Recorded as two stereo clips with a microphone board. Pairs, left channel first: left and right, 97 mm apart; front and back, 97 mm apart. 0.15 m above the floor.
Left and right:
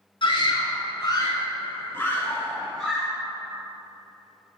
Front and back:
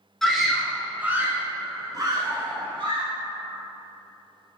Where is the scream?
85° left, 2.5 m; by 3.1 s straight behind, 2.5 m.